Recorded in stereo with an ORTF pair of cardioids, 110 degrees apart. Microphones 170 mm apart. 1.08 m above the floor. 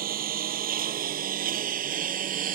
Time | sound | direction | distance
0.0 | a lawn mower | 55° right | ?